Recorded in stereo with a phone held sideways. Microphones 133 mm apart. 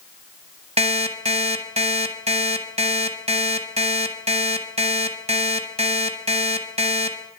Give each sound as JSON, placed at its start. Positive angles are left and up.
{"t": 0.8, "sound": "an alarm clock", "side_deg": -50, "distance_m": 1.1}